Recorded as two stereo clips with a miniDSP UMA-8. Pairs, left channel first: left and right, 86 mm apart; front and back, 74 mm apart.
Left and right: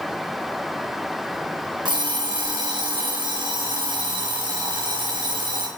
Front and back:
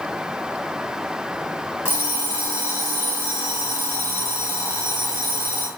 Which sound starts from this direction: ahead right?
An alarm clock, at 1.9 s.